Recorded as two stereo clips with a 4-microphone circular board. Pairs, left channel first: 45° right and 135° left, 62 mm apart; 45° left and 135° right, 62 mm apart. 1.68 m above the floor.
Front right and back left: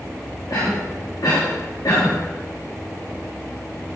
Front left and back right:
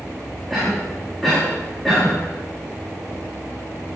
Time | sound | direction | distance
0.5 | a cough | 45° right | 3.5 m